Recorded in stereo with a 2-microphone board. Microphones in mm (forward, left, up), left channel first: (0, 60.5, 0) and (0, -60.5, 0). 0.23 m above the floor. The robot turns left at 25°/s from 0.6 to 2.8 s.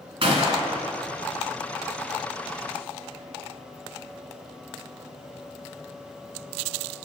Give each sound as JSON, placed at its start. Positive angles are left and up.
{"t": 0.2, "sound": "a gunshot", "side_deg": -45, "distance_m": 1.8}